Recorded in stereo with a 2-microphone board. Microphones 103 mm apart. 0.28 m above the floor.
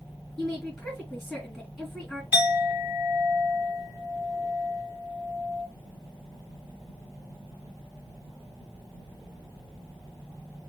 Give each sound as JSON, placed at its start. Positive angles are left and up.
{"t": 0.4, "sound": "a woman speaking", "side_deg": 5, "distance_m": 3.0}
{"t": 2.3, "sound": "a clink", "side_deg": -20, "distance_m": 2.5}